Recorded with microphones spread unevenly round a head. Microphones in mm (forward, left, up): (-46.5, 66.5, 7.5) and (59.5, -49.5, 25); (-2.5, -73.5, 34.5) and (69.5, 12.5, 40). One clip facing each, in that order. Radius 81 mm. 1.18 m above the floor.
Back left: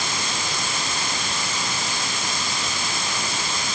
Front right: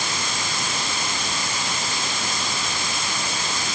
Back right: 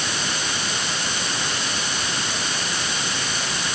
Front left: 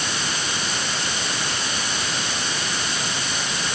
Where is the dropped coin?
I don't hear a dropped coin.